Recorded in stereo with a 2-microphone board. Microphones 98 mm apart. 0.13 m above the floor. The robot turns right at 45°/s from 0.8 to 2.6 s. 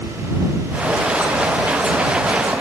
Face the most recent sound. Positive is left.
No sound to turn to.